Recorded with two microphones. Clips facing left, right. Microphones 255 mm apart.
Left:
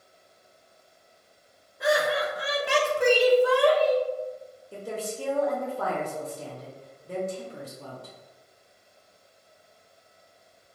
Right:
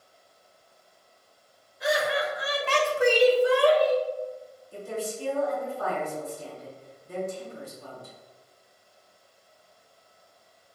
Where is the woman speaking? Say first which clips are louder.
Right 1 dB; 70° left (ahead or behind), 0.8 m.